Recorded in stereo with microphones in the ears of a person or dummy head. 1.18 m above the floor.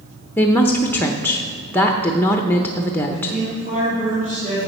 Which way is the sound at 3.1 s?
35° right (ahead or behind).